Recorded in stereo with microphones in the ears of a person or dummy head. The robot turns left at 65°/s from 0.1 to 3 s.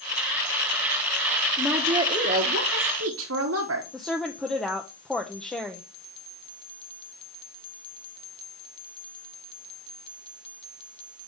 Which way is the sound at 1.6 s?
Straight ahead.